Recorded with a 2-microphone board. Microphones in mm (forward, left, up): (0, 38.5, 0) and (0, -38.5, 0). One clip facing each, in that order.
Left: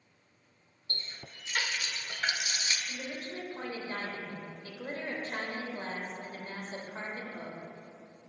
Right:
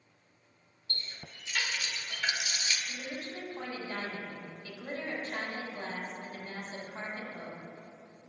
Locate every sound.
0.9 s a running tap: 35° left (ahead or behind), 0.7 m
2.9 s a woman speaking: 35° left (ahead or behind), 1.5 m